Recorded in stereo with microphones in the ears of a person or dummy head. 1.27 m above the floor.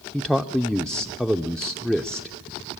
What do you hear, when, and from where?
0.1 s a man speaking: centre (ahead or behind), 0.5 m